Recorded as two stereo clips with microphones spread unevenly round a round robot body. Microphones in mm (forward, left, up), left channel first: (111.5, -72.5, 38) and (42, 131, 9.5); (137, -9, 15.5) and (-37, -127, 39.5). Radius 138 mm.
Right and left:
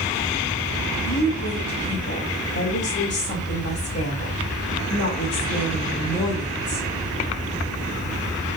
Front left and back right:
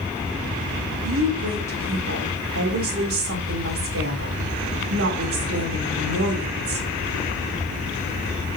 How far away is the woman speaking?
About 3.5 m.